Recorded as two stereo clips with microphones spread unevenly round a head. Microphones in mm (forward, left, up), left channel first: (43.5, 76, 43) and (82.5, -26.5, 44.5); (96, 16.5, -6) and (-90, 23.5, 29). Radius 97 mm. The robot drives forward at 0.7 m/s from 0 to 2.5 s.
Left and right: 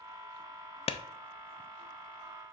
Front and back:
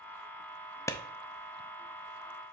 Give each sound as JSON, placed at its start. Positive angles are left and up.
{"t": 0.9, "sound": "a clap", "azimuth_deg": 75, "distance_m": 0.5}